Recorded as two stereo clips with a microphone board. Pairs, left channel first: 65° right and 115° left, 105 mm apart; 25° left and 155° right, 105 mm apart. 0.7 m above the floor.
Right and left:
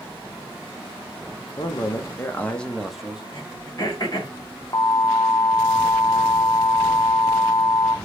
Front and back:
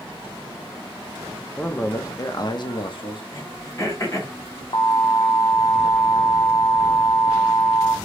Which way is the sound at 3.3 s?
30° right.